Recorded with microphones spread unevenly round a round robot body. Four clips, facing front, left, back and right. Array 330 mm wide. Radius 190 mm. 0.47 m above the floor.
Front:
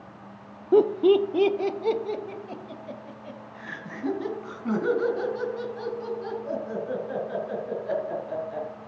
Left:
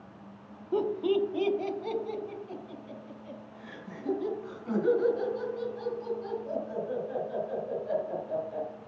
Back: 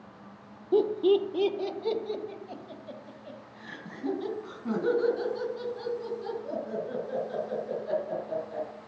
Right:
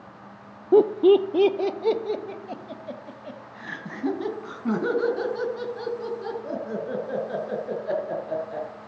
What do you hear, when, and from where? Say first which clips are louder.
0.7 s laughter: right 11 dB, front 5 dB; 70° right, 0.8 m; by 8.7 s 75° right, 7 m